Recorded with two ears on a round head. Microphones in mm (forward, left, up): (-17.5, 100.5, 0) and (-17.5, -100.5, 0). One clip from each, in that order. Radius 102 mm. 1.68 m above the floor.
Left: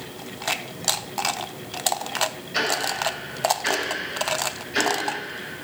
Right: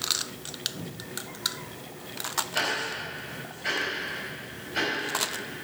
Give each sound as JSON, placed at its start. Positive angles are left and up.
{"t": 2.5, "sound": "ticking", "side_deg": 70, "distance_m": 5.5}